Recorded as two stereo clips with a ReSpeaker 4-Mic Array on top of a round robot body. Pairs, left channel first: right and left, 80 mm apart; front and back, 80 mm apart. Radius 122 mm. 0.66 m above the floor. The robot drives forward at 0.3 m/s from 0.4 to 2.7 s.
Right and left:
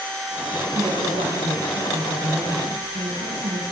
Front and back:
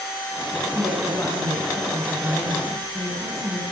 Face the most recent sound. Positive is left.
turn(degrees=80)